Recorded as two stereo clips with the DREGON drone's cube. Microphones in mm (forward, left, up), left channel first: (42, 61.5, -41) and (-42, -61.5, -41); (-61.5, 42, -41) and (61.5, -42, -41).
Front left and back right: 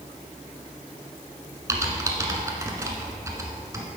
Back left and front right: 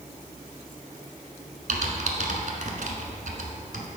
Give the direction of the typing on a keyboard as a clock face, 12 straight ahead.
2 o'clock.